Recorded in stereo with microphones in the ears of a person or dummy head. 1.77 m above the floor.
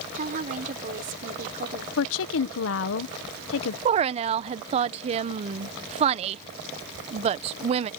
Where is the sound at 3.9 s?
35° right (ahead or behind).